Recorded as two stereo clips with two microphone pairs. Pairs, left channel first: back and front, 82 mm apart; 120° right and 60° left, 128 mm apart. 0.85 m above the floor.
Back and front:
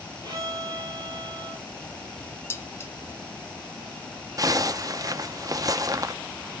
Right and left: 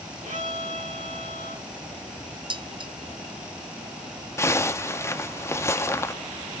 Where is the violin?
40° left, 4 m.